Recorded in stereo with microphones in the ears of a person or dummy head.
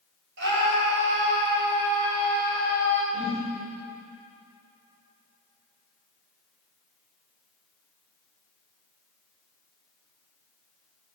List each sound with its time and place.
0.4 s a scream: 70° right (ahead or behind), 7 m
3.1 s a whoosh: 30° right (ahead or behind), 6 m